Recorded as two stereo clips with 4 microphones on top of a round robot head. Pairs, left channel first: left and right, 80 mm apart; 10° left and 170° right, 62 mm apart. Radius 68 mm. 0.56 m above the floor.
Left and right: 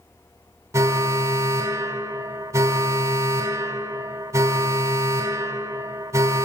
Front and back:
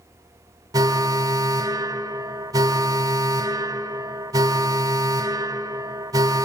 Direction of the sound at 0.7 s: 145° right.